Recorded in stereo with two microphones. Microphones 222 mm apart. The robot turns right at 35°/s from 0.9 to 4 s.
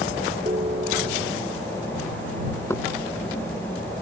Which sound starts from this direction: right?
A ringtone, at 0.5 s.